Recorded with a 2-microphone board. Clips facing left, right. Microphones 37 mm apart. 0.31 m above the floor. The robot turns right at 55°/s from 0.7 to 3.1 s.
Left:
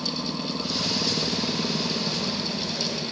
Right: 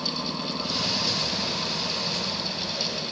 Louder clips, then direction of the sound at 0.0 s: Even; 15° left.